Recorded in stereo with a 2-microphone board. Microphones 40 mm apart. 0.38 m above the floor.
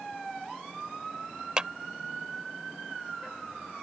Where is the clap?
25° right (ahead or behind).